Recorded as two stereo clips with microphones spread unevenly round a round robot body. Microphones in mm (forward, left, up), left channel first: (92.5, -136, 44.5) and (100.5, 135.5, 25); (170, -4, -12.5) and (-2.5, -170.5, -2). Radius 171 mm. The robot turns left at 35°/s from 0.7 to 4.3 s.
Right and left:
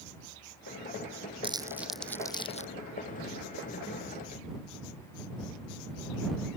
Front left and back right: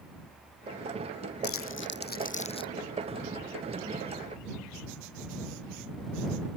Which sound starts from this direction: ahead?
Crumpling, at 1.4 s.